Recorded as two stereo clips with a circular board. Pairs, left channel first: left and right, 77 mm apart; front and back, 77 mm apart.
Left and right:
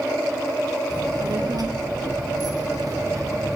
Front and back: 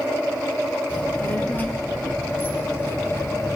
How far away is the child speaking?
About 4 m.